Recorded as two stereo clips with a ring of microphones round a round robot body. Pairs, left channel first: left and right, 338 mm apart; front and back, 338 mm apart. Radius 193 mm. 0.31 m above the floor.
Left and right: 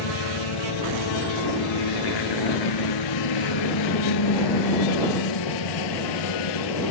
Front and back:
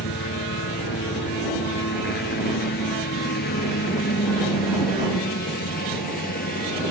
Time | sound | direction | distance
0.0 | a helicopter | 65° left | ?